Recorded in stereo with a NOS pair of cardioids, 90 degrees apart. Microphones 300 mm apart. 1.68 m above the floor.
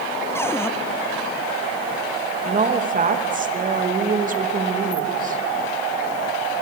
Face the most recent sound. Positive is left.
turn(degrees=-25)